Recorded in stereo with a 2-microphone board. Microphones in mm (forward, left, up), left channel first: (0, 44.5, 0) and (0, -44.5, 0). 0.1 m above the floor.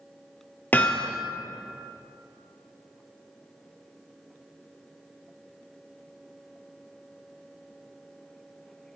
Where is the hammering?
20° left (ahead or behind), 1.6 m.